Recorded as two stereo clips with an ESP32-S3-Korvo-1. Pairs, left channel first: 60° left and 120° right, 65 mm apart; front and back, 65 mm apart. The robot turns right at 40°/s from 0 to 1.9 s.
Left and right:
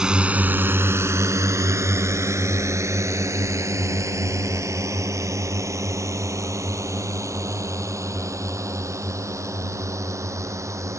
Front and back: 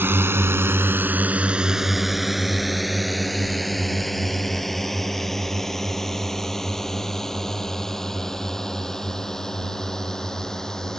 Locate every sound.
0.0 s a drone: 170° left; by 11.0 s 80° right